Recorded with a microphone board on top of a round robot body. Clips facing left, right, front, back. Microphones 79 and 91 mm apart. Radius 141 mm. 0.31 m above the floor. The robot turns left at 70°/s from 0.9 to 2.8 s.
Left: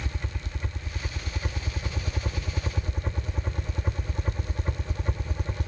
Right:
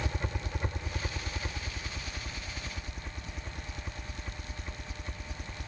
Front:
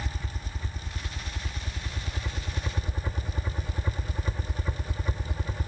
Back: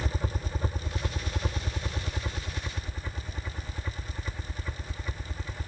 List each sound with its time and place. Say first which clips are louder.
0.0 s a helicopter: right 2 dB, back 5 dB; 160° right; by 5.7 s 70° left